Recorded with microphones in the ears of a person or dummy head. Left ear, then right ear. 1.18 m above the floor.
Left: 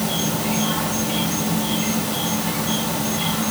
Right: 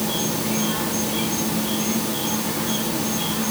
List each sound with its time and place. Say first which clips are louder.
0.0 s an insect: left 1 dB; 15° left (ahead or behind), 1.9 m